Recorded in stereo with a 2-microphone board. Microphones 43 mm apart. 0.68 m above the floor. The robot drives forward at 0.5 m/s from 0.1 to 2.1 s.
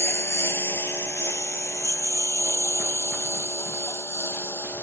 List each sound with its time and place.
0.0 s a lawn mower: 85° left